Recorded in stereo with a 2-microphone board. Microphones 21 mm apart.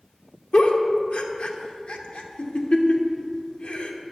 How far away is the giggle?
About 0.8 m.